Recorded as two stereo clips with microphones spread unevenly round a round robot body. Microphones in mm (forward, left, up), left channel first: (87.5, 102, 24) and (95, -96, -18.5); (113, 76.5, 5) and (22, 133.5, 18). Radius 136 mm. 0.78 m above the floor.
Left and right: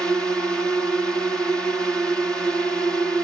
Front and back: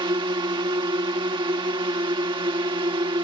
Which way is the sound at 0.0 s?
170° right.